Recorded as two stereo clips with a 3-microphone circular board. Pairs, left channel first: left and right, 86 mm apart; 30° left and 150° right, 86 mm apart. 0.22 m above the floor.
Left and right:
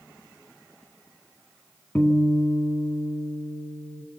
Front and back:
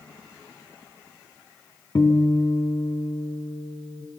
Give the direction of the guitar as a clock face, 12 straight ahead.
11 o'clock.